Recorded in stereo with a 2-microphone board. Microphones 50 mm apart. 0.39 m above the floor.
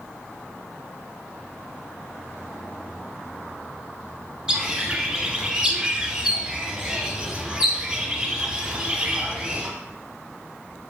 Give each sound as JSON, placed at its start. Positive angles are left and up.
{"t": 4.5, "sound": "a bird", "side_deg": -15, "distance_m": 1.0}